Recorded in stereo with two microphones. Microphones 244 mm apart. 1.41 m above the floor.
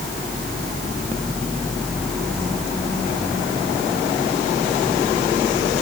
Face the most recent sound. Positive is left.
No sound to turn to.